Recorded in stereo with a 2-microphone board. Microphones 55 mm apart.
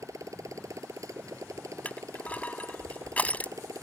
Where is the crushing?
25° left (ahead or behind).